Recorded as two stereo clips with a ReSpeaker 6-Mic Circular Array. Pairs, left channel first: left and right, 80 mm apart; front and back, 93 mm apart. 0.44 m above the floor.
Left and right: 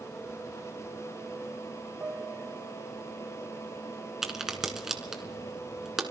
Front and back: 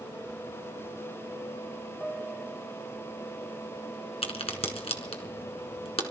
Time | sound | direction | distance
2.0 | a piano | 80° right | 0.9 m
4.2 | a crack | 5° right | 1.8 m